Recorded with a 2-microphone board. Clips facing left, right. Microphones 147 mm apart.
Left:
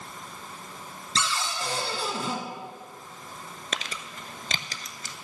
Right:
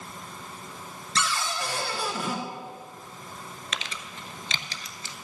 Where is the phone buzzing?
I don't hear a phone buzzing.